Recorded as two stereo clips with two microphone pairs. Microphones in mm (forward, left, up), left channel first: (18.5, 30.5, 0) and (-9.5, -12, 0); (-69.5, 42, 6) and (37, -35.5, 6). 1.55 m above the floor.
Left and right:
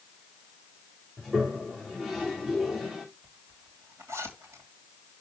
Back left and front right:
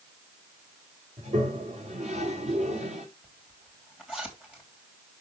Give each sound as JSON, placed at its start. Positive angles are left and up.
{"t": 1.2, "sound": "a toilet flushing", "azimuth_deg": -25, "distance_m": 2.5}
{"t": 3.2, "sound": "a zipper", "azimuth_deg": -115, "distance_m": 3.0}